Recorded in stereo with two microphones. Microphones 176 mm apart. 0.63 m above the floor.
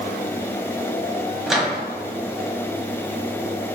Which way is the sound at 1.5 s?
Centre (ahead or behind).